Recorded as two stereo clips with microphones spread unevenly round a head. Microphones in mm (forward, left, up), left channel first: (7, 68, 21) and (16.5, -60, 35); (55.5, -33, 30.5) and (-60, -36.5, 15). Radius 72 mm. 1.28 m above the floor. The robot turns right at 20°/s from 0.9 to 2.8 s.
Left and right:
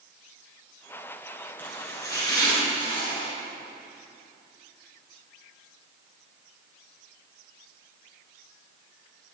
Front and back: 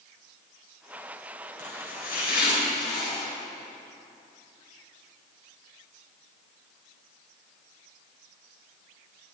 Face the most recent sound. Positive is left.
turn(degrees=40)